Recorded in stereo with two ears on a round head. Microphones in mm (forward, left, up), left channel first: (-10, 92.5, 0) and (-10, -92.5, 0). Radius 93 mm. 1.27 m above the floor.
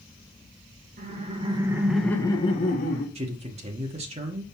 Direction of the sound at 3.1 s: 30° right (ahead or behind).